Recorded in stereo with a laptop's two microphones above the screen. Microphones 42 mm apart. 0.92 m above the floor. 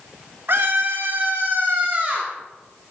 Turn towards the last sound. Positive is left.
turn(degrees=-30)  # may be behind; listen again after turning